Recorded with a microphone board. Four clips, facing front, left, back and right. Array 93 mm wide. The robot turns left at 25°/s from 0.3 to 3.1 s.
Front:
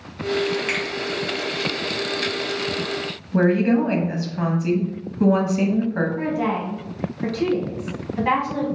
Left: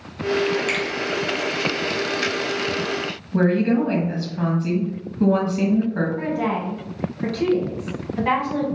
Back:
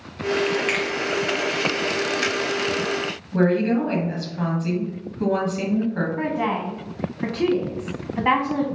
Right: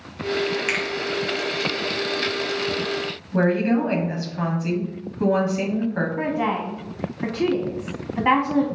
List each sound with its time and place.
0.7 s a finger snap: 115° right, 1.5 m; by 0.8 s 120° right, 1.5 m
3.3 s a woman speaking: 30° right, 1.0 m
6.2 s a woman speaking: 135° right, 1.4 m